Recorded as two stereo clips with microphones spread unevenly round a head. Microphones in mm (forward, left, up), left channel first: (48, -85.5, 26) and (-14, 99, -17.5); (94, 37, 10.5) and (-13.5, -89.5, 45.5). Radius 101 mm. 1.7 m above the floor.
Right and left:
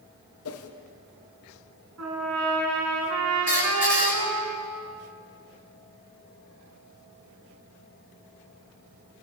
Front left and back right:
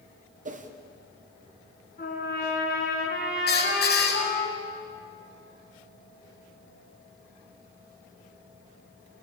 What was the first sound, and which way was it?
A whoosh, 90° right.